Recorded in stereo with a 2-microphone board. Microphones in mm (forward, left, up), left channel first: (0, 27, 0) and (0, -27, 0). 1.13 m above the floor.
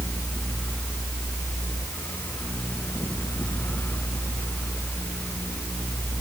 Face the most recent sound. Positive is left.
No sound to turn to.